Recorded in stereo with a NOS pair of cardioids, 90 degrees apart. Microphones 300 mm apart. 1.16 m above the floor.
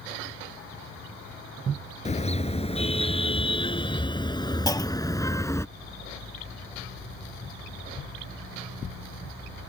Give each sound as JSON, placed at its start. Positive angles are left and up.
{"t": 2.0, "sound": "a car horn", "azimuth_deg": 20}
{"t": 4.7, "sound": "a clunk", "azimuth_deg": 15}